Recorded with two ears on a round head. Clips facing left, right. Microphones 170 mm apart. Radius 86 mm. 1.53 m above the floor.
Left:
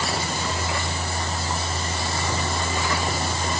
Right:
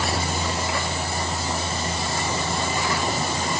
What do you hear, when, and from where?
Only background noise.